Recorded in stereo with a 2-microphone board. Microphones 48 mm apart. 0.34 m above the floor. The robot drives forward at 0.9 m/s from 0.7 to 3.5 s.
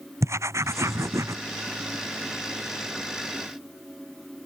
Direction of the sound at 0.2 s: 75° right (ahead or behind).